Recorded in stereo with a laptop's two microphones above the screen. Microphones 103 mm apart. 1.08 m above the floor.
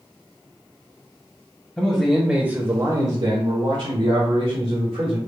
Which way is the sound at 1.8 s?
15° left (ahead or behind).